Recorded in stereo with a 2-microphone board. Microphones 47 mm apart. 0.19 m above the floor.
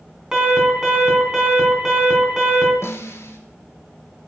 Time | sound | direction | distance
0.3 | an alarm | 15° right (ahead or behind) | 3 m
2.8 | a snare drum | 60° left (ahead or behind) | 1.5 m